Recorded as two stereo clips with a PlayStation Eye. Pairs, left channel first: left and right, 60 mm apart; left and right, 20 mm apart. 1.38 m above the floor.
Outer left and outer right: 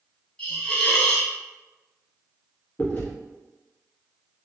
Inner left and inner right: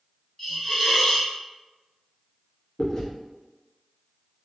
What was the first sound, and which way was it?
A hiss, 15° left (ahead or behind).